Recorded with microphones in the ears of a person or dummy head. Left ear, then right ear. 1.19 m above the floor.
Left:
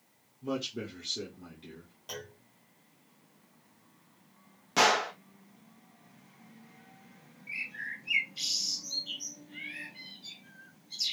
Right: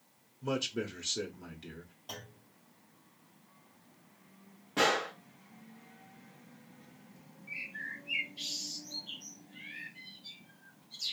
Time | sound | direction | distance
0.4 | a man speaking | 30° right (ahead or behind) | 0.8 m
2.1 | a clunk | 15° left (ahead or behind) | 1.4 m
4.8 | a gunshot | 85° left | 1.0 m
7.5 | a bird | 65° left (ahead or behind) | 0.8 m